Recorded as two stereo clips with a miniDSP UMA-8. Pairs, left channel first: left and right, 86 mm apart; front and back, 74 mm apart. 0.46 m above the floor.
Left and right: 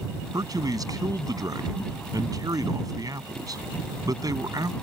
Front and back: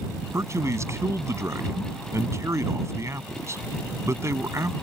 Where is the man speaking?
130° right.